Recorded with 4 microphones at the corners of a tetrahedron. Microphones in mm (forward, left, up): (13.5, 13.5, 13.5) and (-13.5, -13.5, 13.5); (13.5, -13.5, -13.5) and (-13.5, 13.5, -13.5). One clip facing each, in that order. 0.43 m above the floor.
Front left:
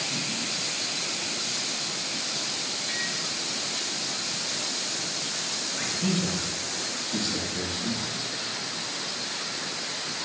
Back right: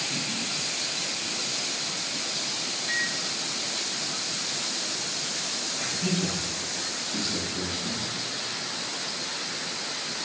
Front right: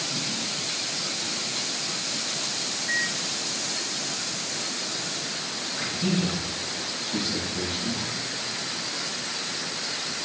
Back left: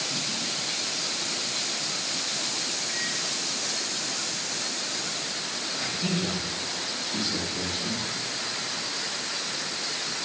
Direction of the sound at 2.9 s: 65° right.